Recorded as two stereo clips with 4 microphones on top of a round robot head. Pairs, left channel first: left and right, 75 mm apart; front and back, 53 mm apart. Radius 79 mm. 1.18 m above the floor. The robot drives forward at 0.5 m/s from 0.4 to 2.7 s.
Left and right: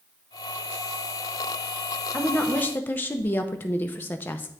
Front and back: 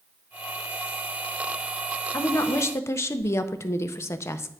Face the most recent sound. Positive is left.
turn(degrees=25)